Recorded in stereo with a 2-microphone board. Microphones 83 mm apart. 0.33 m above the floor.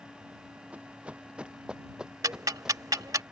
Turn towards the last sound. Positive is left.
turn(degrees=-45)  # may be behind; listen again after turning